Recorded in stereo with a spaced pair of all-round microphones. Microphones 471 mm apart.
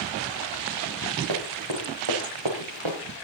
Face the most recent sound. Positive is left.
turn(degrees=-75)  # may be behind; listen again after turning